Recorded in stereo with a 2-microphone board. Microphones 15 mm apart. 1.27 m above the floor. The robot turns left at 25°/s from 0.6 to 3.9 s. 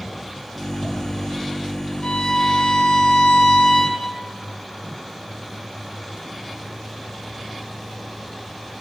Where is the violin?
110° left, 3.5 m; by 4.0 s 60° left, 3.5 m.